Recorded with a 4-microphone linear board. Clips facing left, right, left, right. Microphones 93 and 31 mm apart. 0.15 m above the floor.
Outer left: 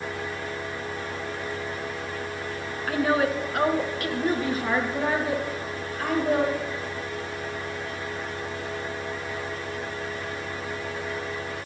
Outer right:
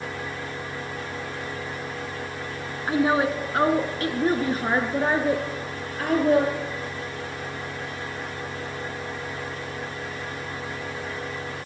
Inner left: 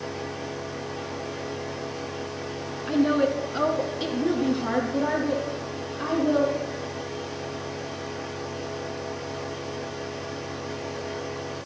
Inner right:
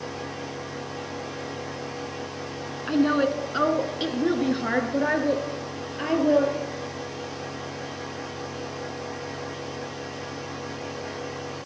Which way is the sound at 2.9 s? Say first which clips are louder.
Outer right 2 dB, even; 20° right (ahead or behind).